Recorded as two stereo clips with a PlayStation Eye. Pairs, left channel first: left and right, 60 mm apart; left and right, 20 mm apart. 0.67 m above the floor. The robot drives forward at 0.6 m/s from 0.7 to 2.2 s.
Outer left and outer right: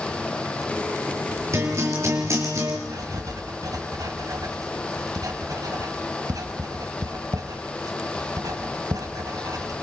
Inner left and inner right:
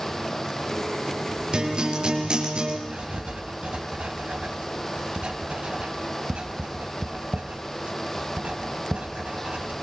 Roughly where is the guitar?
Right.